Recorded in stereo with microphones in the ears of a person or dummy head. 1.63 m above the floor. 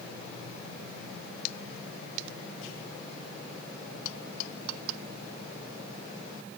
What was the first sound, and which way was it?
Only background noise.